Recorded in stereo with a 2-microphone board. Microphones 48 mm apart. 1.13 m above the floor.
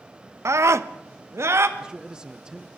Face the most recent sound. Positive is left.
turn(degrees=-15)  # may be behind; listen again after turning